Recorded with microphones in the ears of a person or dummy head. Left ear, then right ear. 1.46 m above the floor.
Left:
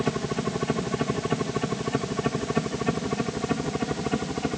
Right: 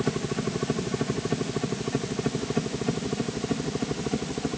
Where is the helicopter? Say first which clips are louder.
Left 1 dB; 25° left (ahead or behind); by 4.6 s 40° left (ahead or behind).